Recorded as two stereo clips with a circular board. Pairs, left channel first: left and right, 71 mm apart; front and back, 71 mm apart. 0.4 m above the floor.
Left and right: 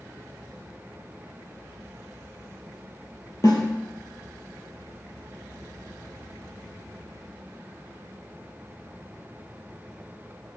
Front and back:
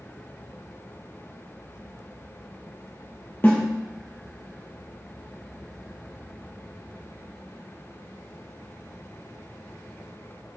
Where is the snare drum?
60° left, 1.6 m.